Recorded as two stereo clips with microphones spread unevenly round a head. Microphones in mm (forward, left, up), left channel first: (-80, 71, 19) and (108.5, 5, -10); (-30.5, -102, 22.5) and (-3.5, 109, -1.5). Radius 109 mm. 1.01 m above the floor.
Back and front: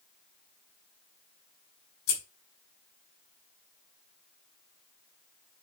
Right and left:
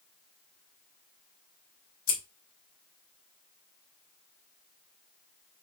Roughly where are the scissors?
Behind right.